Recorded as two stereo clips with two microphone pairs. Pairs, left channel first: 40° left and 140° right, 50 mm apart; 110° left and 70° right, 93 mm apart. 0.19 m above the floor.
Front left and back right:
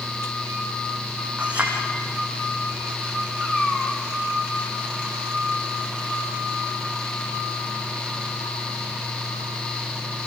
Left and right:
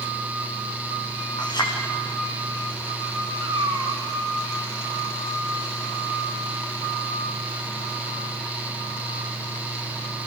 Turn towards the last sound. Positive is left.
turn(degrees=-30)